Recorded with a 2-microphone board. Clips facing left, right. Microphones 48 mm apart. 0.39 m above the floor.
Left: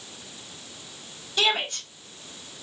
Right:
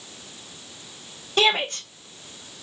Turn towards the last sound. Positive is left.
turn(degrees=-55)  # may be behind; listen again after turning